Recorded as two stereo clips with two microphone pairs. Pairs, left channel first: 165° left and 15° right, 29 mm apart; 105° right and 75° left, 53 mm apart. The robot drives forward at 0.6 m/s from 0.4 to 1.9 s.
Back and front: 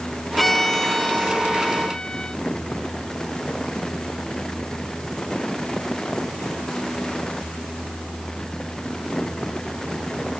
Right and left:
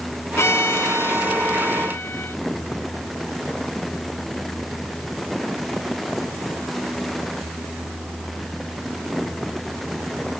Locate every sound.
0.4 s a violin: 110° right; by 2.4 s 135° right